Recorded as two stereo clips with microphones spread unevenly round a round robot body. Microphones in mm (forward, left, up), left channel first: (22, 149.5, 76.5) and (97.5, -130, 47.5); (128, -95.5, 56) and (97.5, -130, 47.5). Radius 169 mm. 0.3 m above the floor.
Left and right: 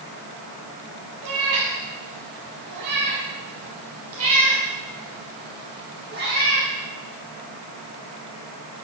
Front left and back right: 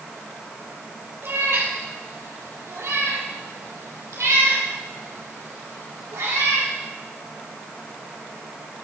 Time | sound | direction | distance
1.2 | a cat meowing | 95° right | 3.5 m